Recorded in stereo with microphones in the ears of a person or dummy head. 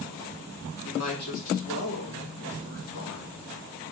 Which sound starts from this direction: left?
A woman speaking, at 0.8 s.